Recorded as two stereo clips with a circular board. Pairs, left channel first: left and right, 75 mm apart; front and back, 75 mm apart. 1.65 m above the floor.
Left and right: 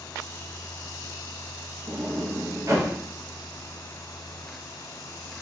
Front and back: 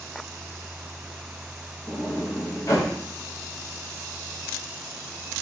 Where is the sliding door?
45° right, 0.9 m.